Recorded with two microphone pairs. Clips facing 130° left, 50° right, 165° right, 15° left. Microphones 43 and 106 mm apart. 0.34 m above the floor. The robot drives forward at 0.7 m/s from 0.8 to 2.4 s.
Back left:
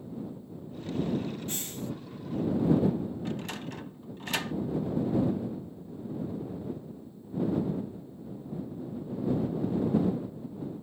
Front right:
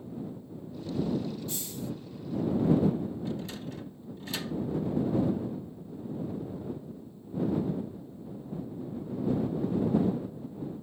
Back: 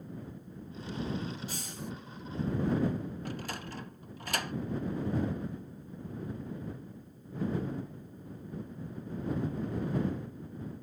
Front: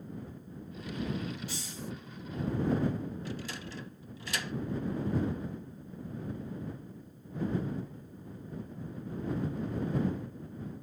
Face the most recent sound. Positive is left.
turn(degrees=160)